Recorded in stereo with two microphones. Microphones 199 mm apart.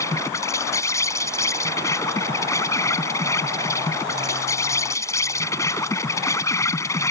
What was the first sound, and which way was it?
An insect, 15° left (ahead or behind).